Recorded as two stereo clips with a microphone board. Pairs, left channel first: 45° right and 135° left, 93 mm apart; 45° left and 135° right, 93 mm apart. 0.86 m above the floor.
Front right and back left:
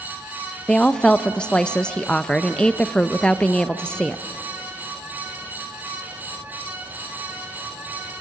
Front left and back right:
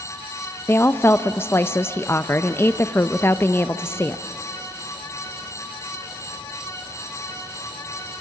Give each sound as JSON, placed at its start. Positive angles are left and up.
{"t": 0.7, "sound": "a woman speaking", "azimuth_deg": 20, "distance_m": 0.5}